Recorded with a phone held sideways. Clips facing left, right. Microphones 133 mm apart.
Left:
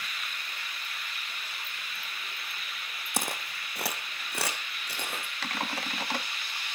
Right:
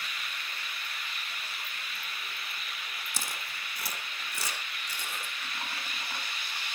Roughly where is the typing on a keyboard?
Left.